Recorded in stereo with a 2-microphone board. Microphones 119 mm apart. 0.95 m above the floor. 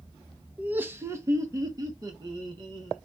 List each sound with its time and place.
0.6 s laughter: 10° right (ahead or behind), 0.7 m; by 3.0 s 40° right (ahead or behind), 1.9 m